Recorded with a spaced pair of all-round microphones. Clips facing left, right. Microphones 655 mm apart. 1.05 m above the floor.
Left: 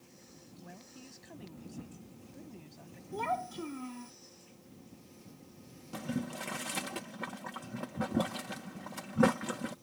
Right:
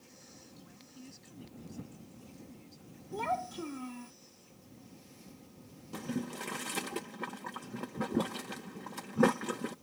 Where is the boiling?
15° left (ahead or behind).